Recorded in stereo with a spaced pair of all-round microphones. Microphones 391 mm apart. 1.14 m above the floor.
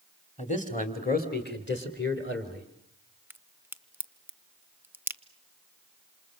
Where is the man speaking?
15° left (ahead or behind), 2.5 m; by 2.7 s 30° left (ahead or behind), 3.5 m.